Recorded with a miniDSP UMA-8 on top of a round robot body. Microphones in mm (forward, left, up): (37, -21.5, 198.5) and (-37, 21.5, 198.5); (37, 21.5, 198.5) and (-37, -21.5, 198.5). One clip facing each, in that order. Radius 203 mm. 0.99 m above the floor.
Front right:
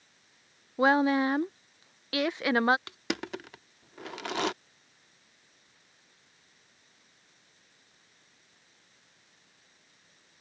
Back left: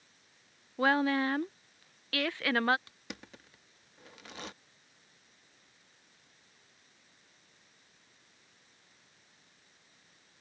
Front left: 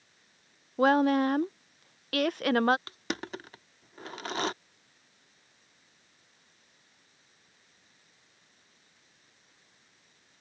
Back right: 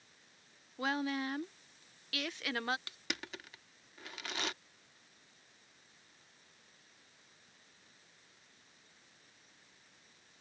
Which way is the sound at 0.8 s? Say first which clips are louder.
Front right 4 dB, front left 13 dB; 35° left.